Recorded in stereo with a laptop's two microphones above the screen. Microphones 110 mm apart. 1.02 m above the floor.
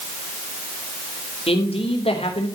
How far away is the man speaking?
About 3.5 m.